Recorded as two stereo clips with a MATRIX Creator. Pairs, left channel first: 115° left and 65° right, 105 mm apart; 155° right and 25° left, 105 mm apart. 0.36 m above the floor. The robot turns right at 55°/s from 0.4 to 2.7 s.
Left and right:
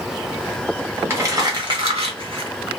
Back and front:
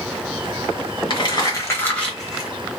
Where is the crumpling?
130° right, 1.0 m; by 2.5 s 55° right, 1.0 m.